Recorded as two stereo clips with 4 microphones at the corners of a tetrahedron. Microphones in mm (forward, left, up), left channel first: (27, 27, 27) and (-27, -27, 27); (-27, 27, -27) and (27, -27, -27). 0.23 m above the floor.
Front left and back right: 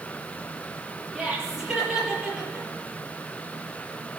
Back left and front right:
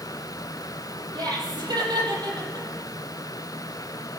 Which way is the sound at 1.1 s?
50° right.